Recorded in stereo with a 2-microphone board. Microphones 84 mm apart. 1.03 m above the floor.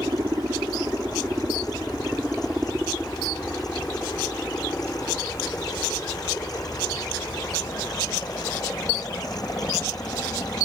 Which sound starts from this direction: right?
A helicopter, at 0.0 s.